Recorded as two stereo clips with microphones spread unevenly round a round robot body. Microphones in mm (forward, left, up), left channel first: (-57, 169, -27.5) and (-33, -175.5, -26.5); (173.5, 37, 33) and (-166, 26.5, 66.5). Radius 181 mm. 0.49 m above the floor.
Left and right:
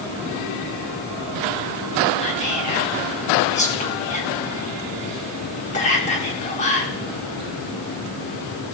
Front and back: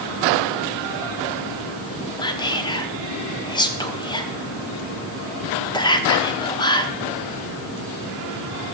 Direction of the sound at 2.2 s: 50° left.